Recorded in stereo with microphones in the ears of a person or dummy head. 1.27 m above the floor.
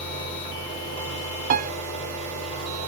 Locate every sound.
0.0 s a fan: 85° right, 3.5 m
1.5 s a piano: 45° right (ahead or behind), 0.5 m